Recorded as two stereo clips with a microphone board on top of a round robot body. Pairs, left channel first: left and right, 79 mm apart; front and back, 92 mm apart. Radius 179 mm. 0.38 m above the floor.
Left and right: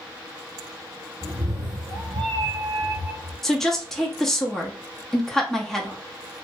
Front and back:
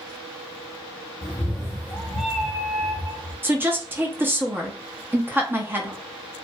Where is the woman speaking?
170° left, 0.9 m.